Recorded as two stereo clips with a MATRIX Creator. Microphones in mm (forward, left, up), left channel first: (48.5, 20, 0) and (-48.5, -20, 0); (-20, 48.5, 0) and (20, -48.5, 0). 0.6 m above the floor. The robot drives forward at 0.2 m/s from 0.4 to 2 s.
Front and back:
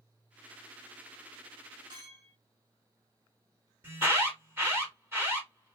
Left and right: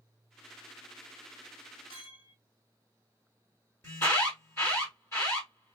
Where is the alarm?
155° left, 1.9 m.